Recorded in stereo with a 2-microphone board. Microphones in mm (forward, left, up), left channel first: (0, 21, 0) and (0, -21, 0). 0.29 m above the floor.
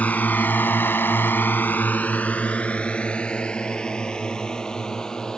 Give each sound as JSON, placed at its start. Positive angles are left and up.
{"t": 0.0, "sound": "a drone", "side_deg": 35}